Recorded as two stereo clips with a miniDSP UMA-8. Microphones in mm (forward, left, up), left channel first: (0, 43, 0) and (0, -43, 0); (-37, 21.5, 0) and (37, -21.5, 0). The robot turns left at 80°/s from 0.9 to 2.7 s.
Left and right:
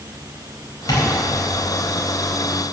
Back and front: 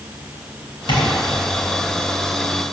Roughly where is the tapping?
Behind left.